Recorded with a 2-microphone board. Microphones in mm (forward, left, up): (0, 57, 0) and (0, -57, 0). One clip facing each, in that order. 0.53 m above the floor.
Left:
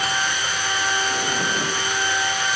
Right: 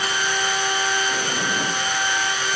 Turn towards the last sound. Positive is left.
No sound to turn to.